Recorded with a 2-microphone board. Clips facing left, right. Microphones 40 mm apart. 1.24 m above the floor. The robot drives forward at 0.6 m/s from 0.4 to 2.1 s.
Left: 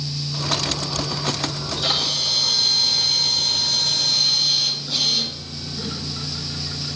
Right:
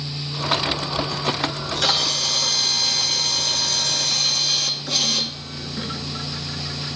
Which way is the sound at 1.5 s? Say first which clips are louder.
Right 2 dB; 75° right (ahead or behind).